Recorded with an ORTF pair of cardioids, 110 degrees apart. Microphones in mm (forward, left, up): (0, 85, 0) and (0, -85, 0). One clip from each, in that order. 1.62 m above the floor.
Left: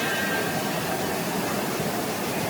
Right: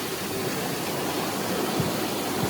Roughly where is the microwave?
I don't hear a microwave.